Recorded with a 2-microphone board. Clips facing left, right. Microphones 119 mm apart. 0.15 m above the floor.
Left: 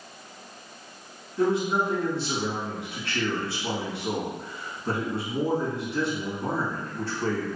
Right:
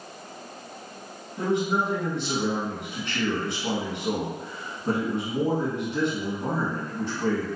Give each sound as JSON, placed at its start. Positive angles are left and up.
{"t": 1.4, "sound": "a man speaking", "side_deg": -20, "distance_m": 1.5}